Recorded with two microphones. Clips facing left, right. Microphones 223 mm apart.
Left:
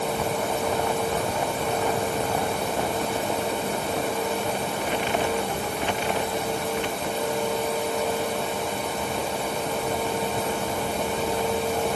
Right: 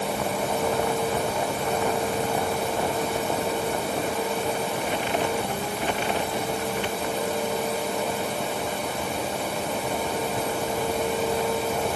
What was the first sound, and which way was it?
Only background noise.